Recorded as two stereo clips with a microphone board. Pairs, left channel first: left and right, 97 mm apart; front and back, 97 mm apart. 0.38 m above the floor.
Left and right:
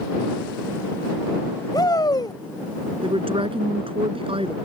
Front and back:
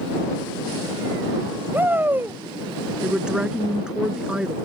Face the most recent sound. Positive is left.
turn(degrees=-100)